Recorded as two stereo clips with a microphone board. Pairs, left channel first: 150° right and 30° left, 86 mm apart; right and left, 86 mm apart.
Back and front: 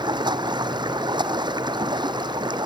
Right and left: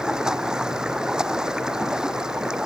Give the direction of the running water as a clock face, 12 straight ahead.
12 o'clock.